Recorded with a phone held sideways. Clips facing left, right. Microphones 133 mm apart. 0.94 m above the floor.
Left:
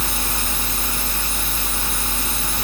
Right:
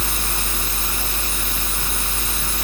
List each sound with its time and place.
Only background noise.